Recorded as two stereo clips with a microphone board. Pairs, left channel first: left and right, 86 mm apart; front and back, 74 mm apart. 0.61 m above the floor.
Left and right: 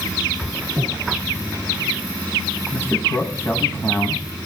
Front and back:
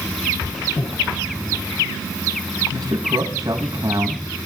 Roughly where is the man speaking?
Behind left.